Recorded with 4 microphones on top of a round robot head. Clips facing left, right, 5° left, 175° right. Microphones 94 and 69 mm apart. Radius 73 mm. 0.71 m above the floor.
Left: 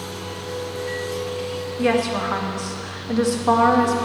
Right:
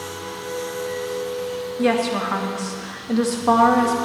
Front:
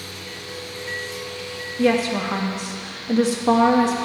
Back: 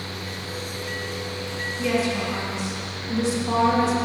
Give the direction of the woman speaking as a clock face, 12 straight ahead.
12 o'clock.